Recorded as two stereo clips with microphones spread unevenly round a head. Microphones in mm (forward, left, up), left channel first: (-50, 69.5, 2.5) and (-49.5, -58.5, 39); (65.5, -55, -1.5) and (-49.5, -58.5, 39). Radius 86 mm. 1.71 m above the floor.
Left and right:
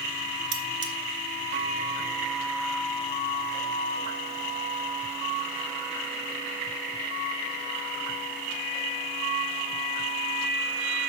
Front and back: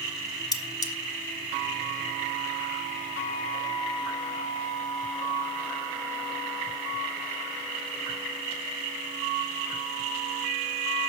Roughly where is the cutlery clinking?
Ahead right.